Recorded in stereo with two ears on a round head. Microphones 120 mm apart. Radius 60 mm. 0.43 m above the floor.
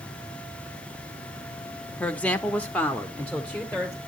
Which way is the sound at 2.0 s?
10° left (ahead or behind).